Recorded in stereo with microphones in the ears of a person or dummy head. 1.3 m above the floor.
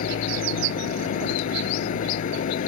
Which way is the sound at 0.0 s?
50° left (ahead or behind).